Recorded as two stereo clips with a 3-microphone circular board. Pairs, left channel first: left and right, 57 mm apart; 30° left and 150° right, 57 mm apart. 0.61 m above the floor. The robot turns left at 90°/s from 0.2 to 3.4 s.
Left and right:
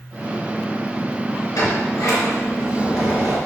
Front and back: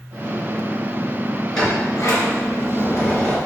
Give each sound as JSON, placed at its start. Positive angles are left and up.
{"t": 1.5, "sound": "a sliding door", "azimuth_deg": 110, "distance_m": 3.5}